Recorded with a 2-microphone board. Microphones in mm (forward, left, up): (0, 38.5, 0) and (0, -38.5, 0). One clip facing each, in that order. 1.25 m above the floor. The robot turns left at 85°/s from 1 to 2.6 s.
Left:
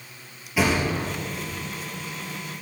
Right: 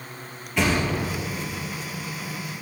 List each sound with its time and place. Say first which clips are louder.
0.6 s a thud: even; 5° left (ahead or behind), 3 m; by 1.1 s centre (ahead or behind), 3 m